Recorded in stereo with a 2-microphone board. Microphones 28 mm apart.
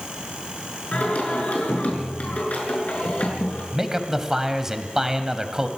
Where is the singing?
55° left (ahead or behind), 5.5 m.